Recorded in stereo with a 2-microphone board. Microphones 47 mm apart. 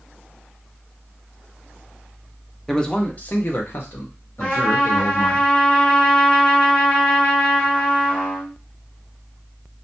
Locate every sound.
2.7 s a man speaking: 5° left (ahead or behind), 0.5 m; by 5.4 s 75° left (ahead or behind), 1.6 m
4.4 s a trumpet: 20° left (ahead or behind), 1.4 m